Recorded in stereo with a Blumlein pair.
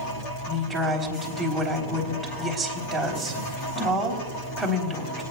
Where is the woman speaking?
5° right, 3.5 m.